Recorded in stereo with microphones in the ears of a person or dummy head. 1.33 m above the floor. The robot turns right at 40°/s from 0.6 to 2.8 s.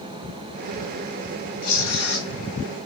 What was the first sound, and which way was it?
Tearing paper, 65° left (ahead or behind).